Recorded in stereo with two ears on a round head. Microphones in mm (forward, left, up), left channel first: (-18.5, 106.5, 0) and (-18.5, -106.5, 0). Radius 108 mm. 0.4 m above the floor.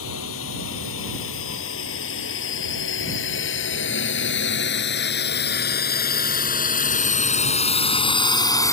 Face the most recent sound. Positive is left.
turn(degrees=15)  # may be behind; listen again after turning